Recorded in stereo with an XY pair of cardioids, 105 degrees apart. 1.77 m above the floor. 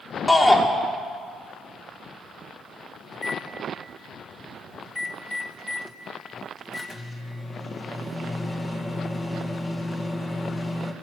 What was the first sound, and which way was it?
A shout, 20° left.